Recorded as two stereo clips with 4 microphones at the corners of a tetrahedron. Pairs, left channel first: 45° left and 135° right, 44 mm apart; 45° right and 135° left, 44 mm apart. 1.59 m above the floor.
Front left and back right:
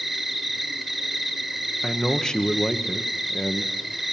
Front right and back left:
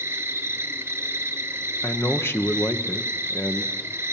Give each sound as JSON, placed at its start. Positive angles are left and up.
{"t": 0.0, "sound": "an insect", "azimuth_deg": 140, "distance_m": 1.1}
{"t": 1.8, "sound": "a man speaking", "azimuth_deg": -30, "distance_m": 1.1}